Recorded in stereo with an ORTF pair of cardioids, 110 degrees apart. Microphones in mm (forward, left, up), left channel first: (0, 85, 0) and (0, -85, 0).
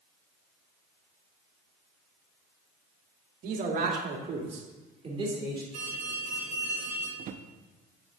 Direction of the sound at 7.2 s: 50° right.